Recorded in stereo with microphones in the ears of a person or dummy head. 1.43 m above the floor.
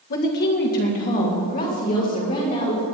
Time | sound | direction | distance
0.1 | a woman speaking | 50° left (ahead or behind) | 1.7 m